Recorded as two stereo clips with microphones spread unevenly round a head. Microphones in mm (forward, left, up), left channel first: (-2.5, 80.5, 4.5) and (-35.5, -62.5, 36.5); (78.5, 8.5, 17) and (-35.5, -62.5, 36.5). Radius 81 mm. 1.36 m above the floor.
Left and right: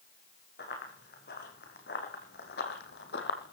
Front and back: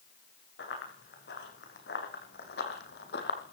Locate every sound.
0.6 s running footsteps: 40° left, 6 m; by 3.5 s 50° left, 2.5 m